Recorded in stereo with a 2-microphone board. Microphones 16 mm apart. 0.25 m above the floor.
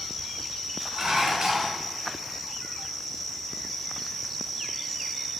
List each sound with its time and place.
0.9 s dishes clattering: 45° right (ahead or behind), 1.8 m